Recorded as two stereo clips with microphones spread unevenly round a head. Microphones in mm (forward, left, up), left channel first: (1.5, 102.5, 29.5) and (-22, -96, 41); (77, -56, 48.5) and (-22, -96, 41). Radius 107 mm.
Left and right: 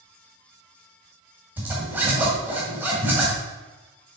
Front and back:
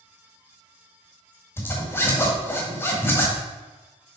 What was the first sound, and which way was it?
A zipper, 25° right.